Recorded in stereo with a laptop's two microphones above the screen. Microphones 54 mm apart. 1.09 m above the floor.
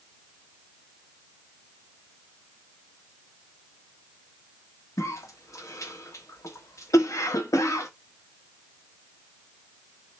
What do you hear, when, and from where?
5.0 s a cough: 75° left (ahead or behind), 1.3 m